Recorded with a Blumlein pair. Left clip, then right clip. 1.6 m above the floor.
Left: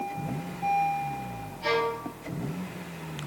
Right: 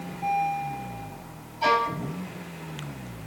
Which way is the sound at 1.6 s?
45° right.